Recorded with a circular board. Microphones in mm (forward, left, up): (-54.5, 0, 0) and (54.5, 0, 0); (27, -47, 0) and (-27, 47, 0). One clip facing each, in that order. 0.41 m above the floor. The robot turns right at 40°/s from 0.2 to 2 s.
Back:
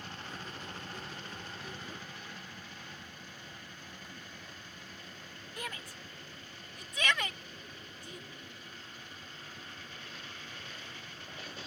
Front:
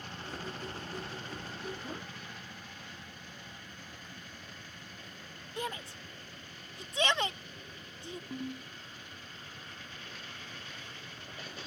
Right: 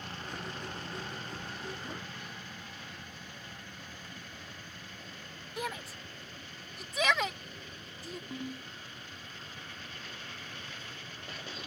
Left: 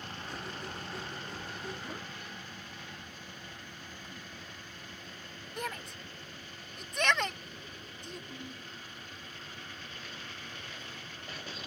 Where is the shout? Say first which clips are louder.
Front 5 dB, right 1 dB; 20° left.